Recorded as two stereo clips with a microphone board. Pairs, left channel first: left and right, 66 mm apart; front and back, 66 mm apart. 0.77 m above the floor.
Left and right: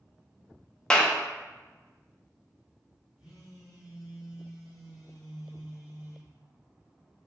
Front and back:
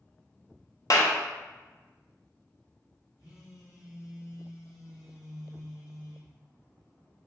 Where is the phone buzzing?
10° right, 1.9 m.